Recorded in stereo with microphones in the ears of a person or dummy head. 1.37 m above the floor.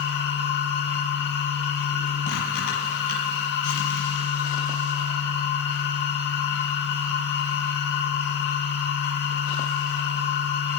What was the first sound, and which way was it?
A machine running, 60° left (ahead or behind).